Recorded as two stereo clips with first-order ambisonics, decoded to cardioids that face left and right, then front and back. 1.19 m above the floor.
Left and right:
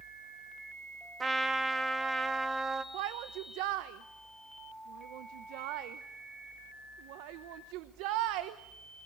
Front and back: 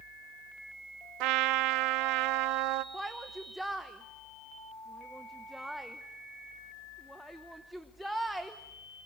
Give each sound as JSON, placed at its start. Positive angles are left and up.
{"t": 1.2, "sound": "a trumpet", "azimuth_deg": -165, "distance_m": 1.0}
{"t": 2.9, "sound": "a shout", "azimuth_deg": -90, "distance_m": 0.9}